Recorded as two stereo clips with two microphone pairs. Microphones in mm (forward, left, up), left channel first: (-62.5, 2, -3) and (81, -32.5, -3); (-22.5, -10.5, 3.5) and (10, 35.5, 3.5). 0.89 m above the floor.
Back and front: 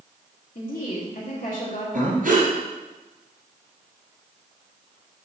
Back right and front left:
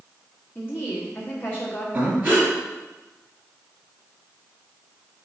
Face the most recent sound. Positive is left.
turn(degrees=-5)